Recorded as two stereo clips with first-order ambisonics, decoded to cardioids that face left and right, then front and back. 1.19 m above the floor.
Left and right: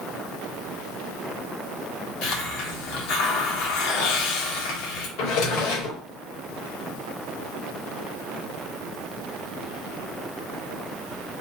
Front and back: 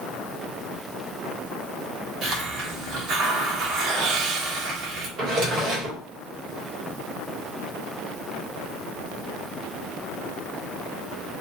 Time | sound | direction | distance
2.2 | a hiss | 120° left | 1.4 m
5.2 | a drawer | 120° left | 2 m